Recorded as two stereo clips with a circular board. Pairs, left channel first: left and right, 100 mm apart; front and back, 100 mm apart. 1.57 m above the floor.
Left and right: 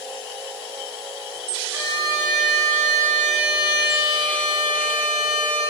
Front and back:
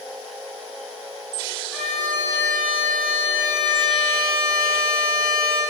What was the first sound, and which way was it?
A violin, 60° right.